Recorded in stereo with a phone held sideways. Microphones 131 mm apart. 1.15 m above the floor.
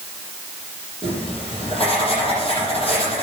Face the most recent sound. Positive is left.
turn(degrees=45)  # may be behind; listen again after turning